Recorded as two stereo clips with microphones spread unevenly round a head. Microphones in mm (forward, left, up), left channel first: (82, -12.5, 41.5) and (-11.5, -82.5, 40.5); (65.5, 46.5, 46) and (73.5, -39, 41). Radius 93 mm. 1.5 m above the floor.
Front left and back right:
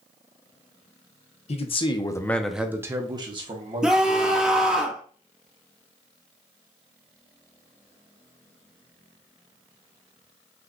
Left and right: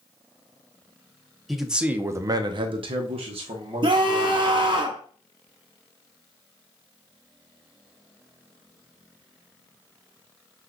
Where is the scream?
60° right, 1.0 m.